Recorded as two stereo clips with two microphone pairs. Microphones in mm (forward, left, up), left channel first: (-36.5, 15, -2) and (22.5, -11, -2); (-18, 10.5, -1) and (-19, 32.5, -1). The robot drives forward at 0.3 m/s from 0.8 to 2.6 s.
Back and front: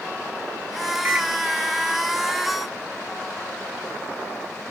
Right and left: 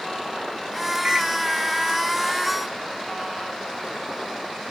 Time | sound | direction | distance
1.1 | a microwave | 35° left | 2.0 m